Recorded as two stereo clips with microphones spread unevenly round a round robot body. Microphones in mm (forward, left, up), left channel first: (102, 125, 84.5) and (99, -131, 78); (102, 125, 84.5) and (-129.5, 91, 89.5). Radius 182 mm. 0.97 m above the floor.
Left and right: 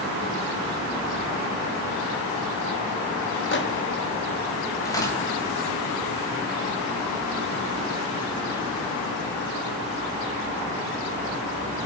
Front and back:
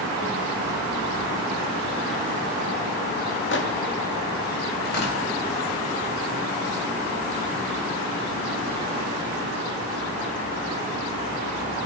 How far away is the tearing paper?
About 4 m.